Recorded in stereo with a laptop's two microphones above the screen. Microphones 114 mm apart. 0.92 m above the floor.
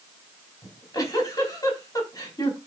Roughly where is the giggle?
Left.